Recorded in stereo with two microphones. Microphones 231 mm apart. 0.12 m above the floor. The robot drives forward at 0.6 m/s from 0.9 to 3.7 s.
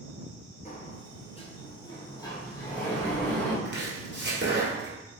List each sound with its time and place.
0.7 s a sliding door: 35° left (ahead or behind), 0.6 m; by 3.5 s 10° left (ahead or behind), 2 m
3.6 s chopping: 50° right (ahead or behind), 1.7 m